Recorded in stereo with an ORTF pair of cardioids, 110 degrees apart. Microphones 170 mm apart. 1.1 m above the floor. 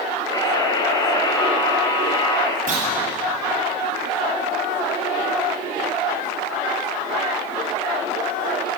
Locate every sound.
0.3 s a buzzer: 25° left, 5 m
2.7 s a clunk: 50° right, 8.5 m